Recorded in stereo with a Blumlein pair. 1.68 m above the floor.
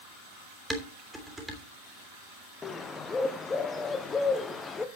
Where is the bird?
15° left, 1.3 m.